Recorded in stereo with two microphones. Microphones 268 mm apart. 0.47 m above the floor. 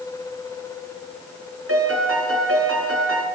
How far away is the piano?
About 3 m.